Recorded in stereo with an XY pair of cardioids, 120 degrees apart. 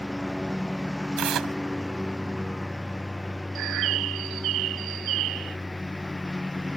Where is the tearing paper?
65° right.